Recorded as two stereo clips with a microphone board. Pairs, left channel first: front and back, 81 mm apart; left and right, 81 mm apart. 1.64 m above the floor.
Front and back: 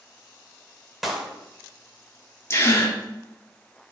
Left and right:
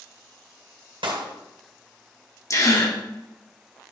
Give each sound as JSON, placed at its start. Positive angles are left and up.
{"t": 1.0, "sound": "a clap", "azimuth_deg": -90, "distance_m": 1.9}
{"t": 2.5, "sound": "a gasp", "azimuth_deg": 50, "distance_m": 1.8}